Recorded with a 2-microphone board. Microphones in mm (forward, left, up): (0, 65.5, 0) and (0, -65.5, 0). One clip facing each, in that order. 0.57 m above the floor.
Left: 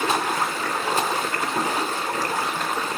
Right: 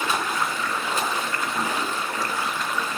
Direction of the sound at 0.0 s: 35° left (ahead or behind).